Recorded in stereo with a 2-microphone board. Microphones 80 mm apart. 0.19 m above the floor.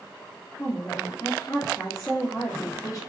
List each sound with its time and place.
0.6 s a woman speaking: 40° left (ahead or behind), 2.5 m